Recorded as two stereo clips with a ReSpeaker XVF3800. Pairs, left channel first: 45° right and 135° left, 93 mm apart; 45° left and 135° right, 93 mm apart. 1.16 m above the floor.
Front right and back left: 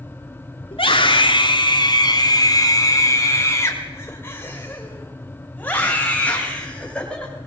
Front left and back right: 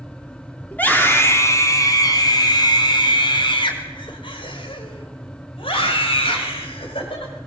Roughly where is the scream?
Ahead right.